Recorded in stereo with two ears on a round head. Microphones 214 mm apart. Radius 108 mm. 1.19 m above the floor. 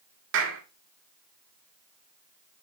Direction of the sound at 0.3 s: 55° right (ahead or behind).